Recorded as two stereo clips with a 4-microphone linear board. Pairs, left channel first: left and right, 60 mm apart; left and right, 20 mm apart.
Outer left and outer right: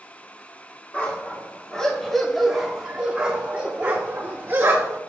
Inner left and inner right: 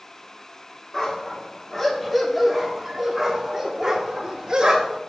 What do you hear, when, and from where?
0.9 s a dog barking: 25° left (ahead or behind), 1.4 m; by 5.0 s 35° right (ahead or behind), 1.9 m